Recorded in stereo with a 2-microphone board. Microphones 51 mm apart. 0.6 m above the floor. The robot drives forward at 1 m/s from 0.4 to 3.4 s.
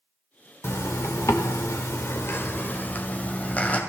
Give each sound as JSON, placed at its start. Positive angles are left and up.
{"t": 0.6, "sound": "a zipper", "side_deg": 55, "distance_m": 1.5}